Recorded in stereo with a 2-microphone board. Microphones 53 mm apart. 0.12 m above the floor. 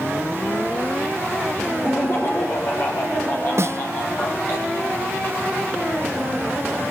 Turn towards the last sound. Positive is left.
turn(degrees=-55)  # may be behind; listen again after turning